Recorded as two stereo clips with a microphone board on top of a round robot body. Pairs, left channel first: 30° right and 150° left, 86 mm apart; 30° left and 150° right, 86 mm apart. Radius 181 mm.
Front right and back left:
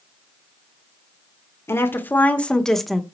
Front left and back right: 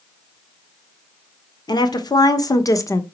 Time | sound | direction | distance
1.7 | a woman speaking | 25° left | 1.8 m